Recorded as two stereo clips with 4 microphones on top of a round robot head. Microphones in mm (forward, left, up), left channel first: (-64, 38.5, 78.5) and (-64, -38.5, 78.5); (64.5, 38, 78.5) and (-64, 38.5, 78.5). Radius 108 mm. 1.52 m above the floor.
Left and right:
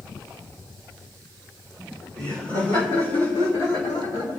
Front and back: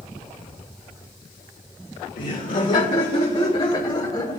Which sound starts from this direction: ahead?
Laughter, at 2.2 s.